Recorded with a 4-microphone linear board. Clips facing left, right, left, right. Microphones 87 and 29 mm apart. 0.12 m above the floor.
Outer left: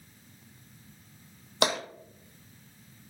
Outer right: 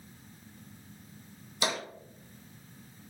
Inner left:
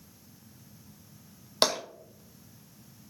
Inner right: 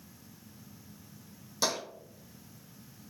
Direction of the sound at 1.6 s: 65° left (ahead or behind).